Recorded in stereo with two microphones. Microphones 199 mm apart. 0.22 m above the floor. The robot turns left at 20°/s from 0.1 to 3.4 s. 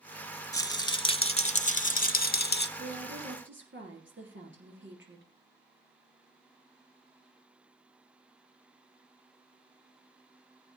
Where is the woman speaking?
65° right (ahead or behind), 3.5 m; by 5.3 s 70° right (ahead or behind), 3.5 m.